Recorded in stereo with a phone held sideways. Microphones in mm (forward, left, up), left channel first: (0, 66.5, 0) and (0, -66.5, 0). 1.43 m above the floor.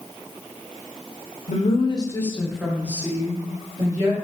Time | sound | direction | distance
1.5 | a woman speaking | 65° left (ahead or behind) | 0.5 m